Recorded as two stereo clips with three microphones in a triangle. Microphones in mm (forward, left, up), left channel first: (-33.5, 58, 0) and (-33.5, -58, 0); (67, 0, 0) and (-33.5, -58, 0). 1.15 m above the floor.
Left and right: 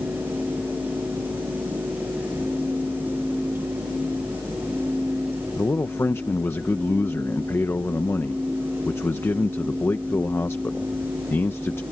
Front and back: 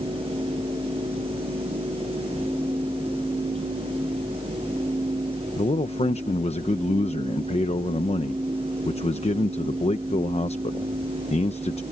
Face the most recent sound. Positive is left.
turn(degrees=25)